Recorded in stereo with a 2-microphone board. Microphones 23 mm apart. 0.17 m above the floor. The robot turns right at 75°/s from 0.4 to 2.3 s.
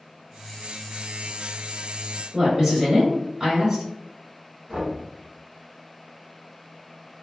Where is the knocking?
45° right (ahead or behind), 1.5 m.